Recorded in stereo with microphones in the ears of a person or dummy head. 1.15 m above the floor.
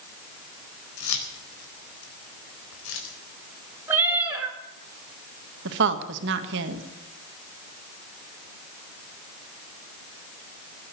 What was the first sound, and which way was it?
Keys jangling, 90° left.